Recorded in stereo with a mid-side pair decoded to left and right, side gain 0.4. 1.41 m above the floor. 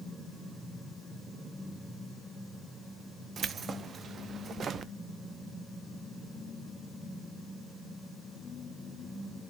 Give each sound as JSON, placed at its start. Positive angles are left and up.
{"t": 3.4, "sound": "keys jangling", "azimuth_deg": -55, "distance_m": 0.7}